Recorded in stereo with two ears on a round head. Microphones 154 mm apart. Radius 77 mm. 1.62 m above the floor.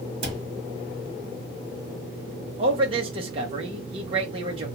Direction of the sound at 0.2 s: 30° right (ahead or behind).